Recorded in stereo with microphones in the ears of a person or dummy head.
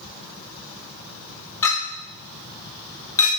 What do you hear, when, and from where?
1.6 s a clink: 25° left (ahead or behind), 1.8 m